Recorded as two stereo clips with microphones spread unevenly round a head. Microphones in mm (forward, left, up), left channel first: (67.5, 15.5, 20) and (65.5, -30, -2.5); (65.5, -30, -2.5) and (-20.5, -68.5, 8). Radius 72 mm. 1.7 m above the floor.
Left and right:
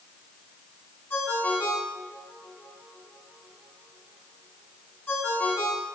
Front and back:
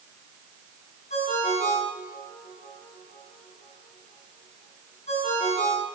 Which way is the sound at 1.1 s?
50° left.